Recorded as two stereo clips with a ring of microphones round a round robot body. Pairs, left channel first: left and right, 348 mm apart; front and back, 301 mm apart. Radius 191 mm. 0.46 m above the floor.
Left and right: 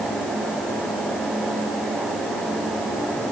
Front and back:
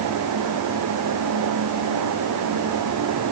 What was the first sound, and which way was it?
Only background noise.